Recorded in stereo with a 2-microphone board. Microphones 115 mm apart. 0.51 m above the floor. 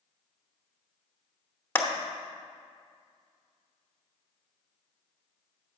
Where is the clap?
20° left (ahead or behind), 1.0 m.